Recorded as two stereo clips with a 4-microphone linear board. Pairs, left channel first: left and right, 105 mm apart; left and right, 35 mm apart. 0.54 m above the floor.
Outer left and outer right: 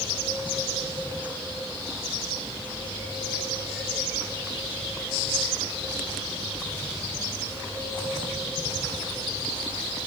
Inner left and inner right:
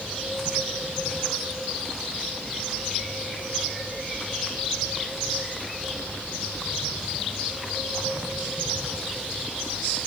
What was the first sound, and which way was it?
Only background noise.